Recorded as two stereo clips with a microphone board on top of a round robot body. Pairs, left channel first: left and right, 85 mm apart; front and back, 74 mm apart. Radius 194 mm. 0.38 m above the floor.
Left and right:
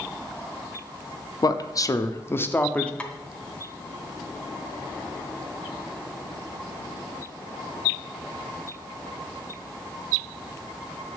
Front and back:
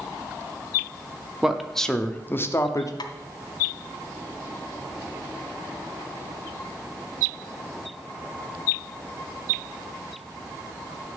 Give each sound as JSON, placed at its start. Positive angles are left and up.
{"t": 1.4, "sound": "a man speaking", "azimuth_deg": 100, "distance_m": 1.0}
{"t": 3.0, "sound": "tapping", "azimuth_deg": 15, "distance_m": 0.9}